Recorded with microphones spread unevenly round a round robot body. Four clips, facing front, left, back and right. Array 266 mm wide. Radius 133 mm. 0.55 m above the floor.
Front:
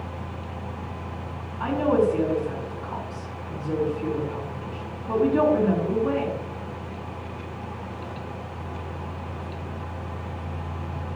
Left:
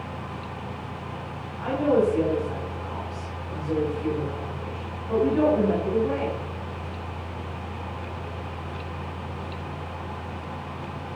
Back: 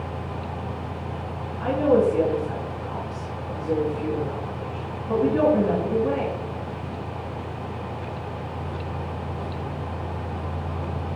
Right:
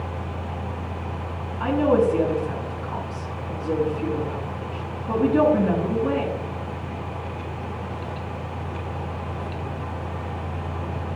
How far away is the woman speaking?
About 4.5 m.